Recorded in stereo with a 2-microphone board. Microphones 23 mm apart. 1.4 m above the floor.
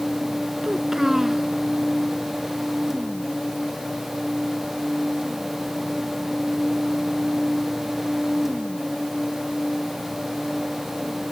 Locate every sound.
0.6 s a child speaking: 15° right (ahead or behind)